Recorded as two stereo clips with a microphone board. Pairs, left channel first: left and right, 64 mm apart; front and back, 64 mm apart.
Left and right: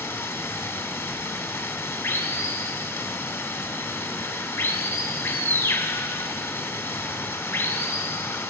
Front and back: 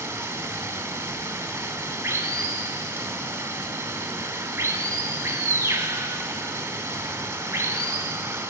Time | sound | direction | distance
0.0 | running water | 130° left | 1.2 m